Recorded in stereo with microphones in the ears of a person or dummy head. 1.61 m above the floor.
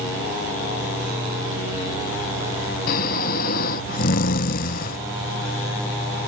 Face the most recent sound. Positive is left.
turn(degrees=55)  # may be behind; listen again after turning